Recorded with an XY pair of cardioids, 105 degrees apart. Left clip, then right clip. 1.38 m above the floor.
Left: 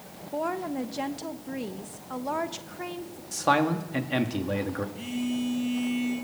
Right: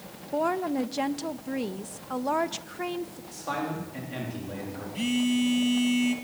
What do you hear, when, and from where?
0.3 s a woman speaking: 20° right, 1.4 m
3.3 s a man speaking: 70° left, 3 m
5.0 s a phone buzzing: 65° right, 3.5 m